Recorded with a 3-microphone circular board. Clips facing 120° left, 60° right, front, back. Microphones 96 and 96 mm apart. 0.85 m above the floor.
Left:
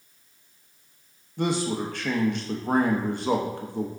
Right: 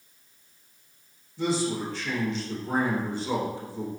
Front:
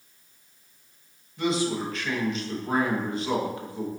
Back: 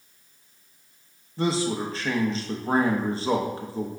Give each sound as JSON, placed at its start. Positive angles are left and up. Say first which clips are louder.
{"t": 1.4, "sound": "a man speaking", "louder": "left 1 dB, back 1 dB", "azimuth_deg": 130, "distance_m": 0.8}